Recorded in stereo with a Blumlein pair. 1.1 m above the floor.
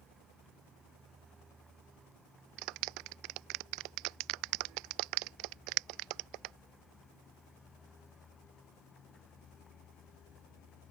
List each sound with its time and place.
0.0 s a vehicle: 15° right; by 10.9 s 25° left
2.6 s a clap: 40° right